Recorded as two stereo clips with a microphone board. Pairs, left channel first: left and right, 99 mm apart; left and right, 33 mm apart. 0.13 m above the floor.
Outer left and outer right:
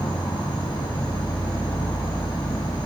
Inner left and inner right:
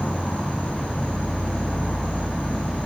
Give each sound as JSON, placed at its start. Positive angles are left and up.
{"t": 0.0, "sound": "an insect", "side_deg": 50, "distance_m": 1.6}